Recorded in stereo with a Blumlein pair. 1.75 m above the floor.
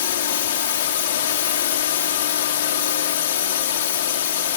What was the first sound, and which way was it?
A drone, 55° left.